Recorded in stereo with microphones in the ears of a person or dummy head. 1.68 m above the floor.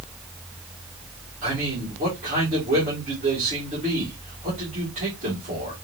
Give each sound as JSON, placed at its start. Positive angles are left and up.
{"t": 1.4, "sound": "a man speaking", "side_deg": -40, "distance_m": 2.5}